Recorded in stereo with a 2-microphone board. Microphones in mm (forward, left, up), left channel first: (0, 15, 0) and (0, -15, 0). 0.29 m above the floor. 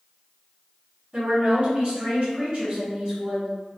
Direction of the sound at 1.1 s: 40° right (ahead or behind).